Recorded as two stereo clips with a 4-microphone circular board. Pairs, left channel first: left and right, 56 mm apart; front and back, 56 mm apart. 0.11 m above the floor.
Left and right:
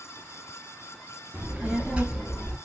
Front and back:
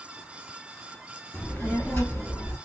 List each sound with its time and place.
1.3 s a child speaking: 45° right, 1.2 m; by 2.6 s 10° right, 1.7 m